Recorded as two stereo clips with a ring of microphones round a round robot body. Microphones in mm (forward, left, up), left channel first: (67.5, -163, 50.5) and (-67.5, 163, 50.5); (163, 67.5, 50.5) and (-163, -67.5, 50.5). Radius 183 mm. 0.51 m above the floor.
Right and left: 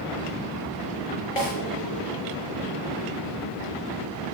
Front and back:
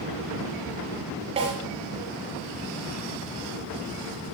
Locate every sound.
1.4 s a snare drum: 85° right, 5 m